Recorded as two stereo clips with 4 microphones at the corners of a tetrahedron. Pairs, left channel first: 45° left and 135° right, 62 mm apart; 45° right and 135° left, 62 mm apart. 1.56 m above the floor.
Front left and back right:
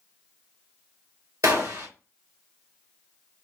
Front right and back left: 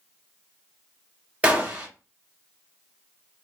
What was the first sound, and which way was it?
A gunshot, 160° right.